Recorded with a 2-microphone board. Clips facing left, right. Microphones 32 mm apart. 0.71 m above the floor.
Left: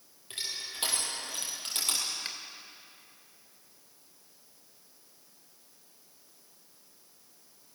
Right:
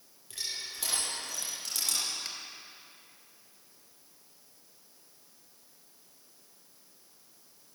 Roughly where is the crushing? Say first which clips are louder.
Left 1 dB; left.